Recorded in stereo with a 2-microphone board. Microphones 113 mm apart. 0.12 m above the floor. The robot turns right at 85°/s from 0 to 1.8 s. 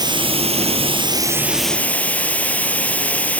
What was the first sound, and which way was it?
Running water, 140° right.